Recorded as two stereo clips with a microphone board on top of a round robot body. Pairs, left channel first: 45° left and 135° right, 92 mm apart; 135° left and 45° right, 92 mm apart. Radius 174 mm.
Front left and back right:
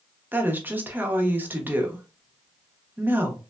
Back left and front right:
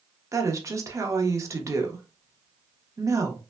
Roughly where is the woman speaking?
Right.